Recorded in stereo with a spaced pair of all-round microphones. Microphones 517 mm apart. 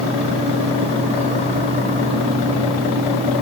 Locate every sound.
0.0 s a fan: 10° right (ahead or behind), 9.5 m